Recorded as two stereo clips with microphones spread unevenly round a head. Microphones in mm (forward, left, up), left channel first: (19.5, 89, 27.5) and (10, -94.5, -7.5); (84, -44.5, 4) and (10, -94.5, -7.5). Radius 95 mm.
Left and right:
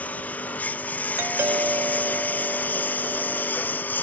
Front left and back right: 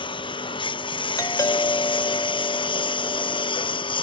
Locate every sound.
0.0 s a lawn mower: 5° left
1.2 s a doorbell: 15° right